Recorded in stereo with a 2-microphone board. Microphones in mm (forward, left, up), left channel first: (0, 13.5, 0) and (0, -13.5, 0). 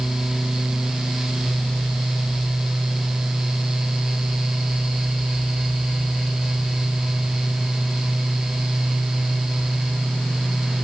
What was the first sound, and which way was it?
Only background noise.